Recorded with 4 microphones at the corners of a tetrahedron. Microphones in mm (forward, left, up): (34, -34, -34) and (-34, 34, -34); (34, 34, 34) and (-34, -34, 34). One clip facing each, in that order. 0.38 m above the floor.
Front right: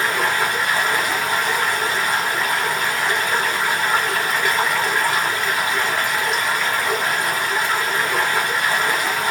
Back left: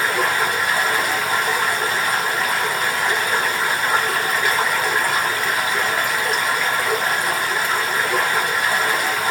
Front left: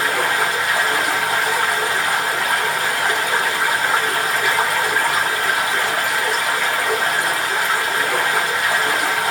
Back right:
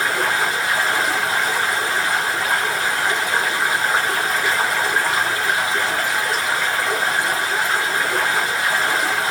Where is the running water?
50° left, 1.5 m.